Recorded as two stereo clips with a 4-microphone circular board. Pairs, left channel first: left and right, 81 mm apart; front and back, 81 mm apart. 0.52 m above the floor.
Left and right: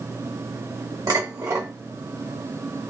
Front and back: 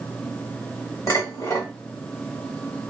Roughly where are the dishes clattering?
Ahead right.